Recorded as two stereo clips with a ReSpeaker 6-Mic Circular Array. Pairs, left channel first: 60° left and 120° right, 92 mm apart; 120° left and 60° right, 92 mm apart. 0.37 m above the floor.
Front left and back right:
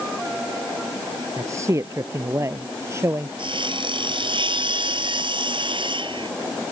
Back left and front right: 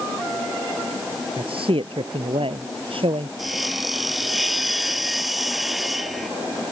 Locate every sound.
1.4 s a man speaking: 65° right; by 3.3 s 60° right
3.4 s sawing: 150° right